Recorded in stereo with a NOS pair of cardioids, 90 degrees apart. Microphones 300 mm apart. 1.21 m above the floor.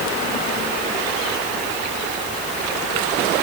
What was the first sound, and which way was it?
Only background noise.